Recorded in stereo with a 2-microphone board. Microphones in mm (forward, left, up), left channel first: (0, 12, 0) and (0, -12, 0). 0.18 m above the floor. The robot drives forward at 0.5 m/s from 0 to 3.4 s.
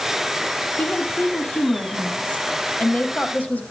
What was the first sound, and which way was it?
A woman speaking, 70° left (ahead or behind).